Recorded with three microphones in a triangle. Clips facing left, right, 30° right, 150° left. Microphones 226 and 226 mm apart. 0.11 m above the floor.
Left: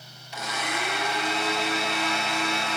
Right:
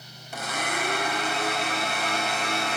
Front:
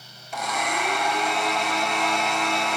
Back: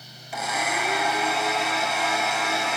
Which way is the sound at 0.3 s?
125° right.